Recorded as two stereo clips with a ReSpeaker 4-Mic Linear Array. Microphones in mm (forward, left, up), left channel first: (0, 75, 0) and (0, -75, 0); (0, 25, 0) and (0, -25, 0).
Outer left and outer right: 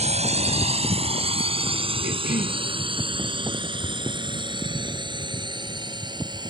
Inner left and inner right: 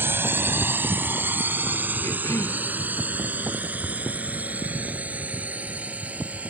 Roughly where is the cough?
Left.